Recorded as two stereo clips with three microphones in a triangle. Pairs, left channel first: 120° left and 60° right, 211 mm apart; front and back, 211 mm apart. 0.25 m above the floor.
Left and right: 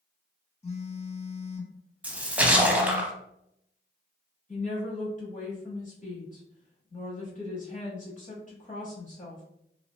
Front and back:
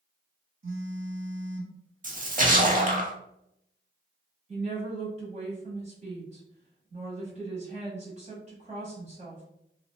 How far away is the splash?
About 0.5 m.